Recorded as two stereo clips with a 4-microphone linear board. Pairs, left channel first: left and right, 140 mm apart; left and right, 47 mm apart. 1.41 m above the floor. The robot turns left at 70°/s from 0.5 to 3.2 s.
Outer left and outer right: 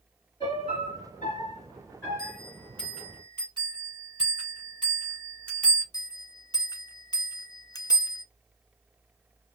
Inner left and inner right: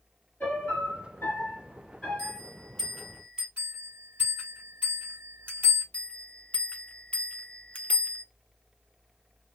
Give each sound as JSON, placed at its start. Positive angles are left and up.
{"t": 0.4, "sound": "a piano", "azimuth_deg": 140, "distance_m": 3.5}
{"t": 2.2, "sound": "a bell", "side_deg": 50, "distance_m": 2.5}
{"t": 3.6, "sound": "a bell", "side_deg": -40, "distance_m": 3.5}
{"t": 5.9, "sound": "a bell", "side_deg": 30, "distance_m": 0.6}